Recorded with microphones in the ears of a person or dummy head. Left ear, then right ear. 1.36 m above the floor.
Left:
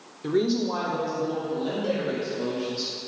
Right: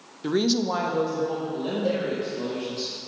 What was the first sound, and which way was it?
A woman speaking, 15° right (ahead or behind).